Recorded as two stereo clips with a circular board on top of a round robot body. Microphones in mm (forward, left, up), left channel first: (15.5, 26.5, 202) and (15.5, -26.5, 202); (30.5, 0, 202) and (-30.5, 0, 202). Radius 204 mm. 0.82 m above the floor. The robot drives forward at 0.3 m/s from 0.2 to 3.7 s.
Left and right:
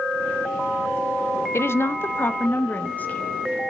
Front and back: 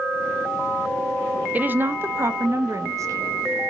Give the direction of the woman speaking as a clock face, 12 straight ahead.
8 o'clock.